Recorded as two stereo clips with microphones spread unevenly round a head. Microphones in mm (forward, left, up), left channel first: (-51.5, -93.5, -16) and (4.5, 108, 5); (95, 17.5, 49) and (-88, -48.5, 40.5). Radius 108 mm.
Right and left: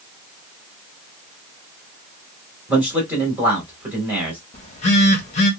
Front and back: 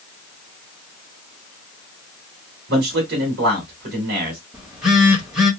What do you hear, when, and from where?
2.7 s a man speaking: 155° left, 1.5 m
4.5 s a phone buzzing: 70° right, 0.9 m